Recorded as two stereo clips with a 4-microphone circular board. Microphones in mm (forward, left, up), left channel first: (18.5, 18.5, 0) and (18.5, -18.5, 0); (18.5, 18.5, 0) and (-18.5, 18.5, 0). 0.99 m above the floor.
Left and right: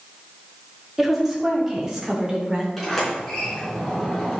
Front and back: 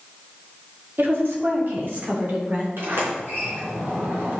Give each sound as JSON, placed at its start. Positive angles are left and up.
{"t": 1.0, "sound": "a woman speaking", "azimuth_deg": -175, "distance_m": 2.5}
{"t": 2.8, "sound": "a sliding door", "azimuth_deg": 180, "distance_m": 4.0}